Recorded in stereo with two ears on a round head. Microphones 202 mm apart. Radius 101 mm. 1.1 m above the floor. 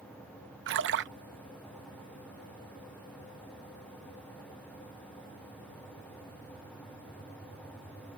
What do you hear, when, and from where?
0.7 s a splash: 55° right (ahead or behind)